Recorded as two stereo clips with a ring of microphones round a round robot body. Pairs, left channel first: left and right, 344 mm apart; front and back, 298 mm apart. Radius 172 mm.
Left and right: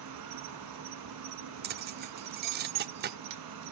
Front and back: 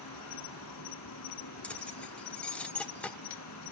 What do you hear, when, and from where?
0.0 s an insect: 50° right, 1.2 m
1.6 s keys jangling: 80° right, 0.7 m